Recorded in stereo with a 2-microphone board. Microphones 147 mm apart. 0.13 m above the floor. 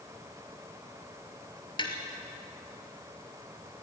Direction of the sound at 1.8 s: 30° left (ahead or behind).